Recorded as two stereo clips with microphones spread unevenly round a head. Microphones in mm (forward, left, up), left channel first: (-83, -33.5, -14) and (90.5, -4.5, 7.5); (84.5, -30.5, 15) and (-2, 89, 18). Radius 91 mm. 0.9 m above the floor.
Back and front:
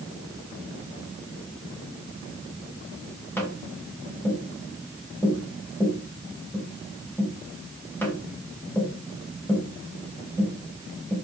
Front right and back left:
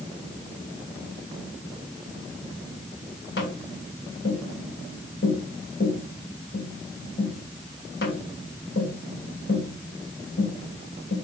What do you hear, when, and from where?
3.4 s tapping: 90° right, 2.5 m